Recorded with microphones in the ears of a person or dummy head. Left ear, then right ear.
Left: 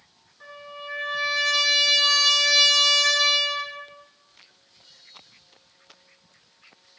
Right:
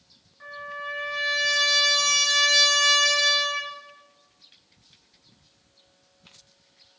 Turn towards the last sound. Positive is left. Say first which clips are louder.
# right 4 dB
turn(degrees=-15)  # may be behind; listen again after turning